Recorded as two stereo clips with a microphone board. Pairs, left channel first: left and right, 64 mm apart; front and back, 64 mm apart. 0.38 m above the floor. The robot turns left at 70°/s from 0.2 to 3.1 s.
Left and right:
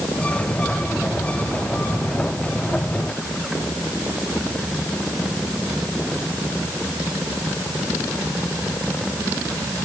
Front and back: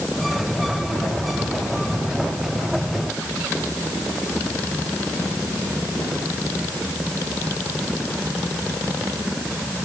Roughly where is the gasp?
No gasp in this recording.